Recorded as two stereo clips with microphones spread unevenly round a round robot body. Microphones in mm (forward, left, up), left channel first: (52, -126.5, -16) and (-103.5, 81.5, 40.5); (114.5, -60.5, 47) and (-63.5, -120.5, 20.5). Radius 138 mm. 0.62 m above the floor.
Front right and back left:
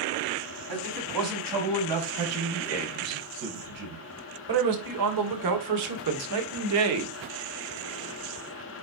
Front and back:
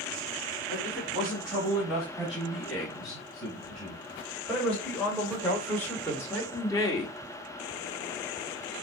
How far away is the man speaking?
About 5.5 m.